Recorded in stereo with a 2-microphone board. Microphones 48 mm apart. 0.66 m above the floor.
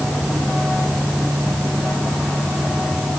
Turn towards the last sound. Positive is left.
No sound to turn to.